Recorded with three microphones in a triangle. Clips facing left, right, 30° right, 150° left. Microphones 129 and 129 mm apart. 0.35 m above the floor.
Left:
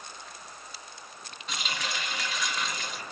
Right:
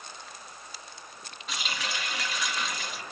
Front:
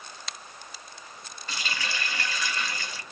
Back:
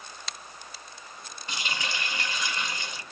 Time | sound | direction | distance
1.5 | a running tap | straight behind | 0.6 m